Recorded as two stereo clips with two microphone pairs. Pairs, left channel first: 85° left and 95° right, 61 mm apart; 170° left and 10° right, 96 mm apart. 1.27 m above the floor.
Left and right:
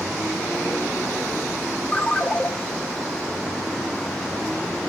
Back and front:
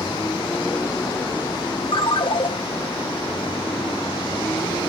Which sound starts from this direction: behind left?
A ringtone, at 1.9 s.